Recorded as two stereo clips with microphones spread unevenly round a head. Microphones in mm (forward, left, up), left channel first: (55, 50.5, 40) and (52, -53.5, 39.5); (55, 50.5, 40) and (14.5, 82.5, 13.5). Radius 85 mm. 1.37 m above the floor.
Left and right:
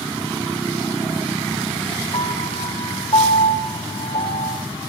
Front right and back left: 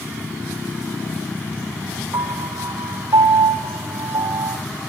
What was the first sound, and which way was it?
A piano, 150° left.